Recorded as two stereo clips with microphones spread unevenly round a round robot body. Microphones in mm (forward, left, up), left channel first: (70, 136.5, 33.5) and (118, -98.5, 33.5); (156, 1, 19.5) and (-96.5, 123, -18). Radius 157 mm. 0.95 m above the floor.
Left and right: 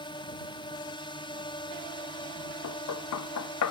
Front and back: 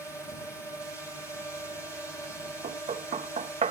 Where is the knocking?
90° left.